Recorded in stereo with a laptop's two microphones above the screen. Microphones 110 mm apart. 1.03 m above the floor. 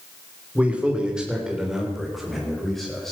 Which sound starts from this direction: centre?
A man speaking, at 0.6 s.